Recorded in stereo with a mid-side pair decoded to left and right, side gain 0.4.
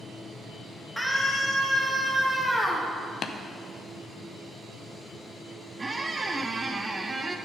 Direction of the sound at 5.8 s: 30° right.